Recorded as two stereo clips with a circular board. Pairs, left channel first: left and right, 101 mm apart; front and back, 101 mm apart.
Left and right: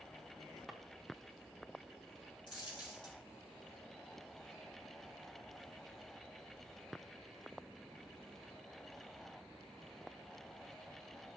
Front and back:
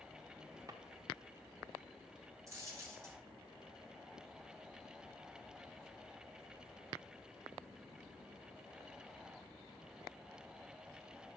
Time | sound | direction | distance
0.7 | a drawer | straight behind | 1.1 m
2.5 | a dropped coin | 130° left | 2.5 m